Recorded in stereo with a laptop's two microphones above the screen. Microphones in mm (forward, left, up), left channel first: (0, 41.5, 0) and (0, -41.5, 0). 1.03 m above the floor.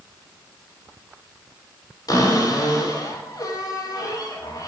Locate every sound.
2.1 s a cupboard door: 50° left (ahead or behind), 2.5 m